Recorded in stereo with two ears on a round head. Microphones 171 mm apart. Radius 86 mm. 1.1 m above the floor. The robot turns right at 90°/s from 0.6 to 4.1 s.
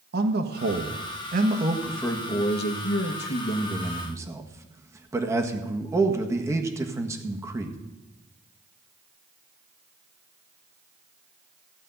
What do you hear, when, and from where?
0.1 s a man speaking: 120° right, 1.4 m; by 7.8 s 165° right, 1.4 m